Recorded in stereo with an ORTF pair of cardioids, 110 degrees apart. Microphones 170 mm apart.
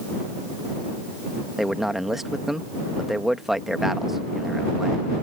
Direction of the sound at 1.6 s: Straight ahead.